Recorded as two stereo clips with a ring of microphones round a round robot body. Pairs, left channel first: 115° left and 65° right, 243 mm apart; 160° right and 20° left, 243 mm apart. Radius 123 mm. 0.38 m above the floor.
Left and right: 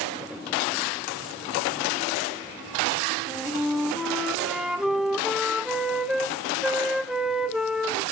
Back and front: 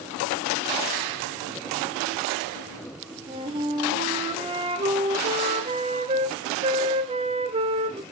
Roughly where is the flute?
Ahead.